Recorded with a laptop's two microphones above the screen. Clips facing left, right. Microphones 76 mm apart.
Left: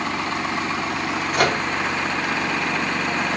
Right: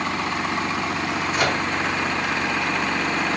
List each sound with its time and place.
1.3 s a microwave: 60° left (ahead or behind), 0.6 m